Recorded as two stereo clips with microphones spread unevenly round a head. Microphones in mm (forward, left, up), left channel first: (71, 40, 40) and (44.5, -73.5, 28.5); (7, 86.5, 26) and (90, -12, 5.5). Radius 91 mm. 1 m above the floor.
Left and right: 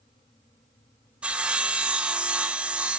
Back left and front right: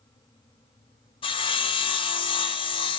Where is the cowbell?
No cowbell in this recording.